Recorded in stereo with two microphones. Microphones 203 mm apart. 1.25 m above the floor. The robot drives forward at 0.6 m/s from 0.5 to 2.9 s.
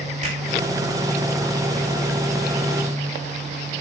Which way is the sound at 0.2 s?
35° right (ahead or behind).